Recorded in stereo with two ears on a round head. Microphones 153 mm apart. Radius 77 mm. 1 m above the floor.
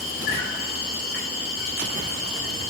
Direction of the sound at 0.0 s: 65° left (ahead or behind).